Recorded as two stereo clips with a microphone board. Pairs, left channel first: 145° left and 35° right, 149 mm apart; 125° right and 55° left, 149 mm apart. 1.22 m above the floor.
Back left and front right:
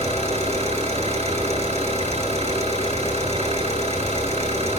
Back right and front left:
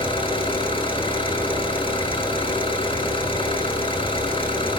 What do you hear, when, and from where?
0.0 s an engine running: 75° right, 6 m